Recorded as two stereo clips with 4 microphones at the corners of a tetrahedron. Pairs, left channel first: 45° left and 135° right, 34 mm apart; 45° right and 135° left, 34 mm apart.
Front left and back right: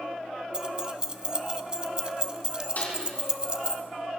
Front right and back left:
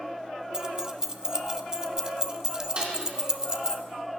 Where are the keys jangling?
175° right, 0.8 m.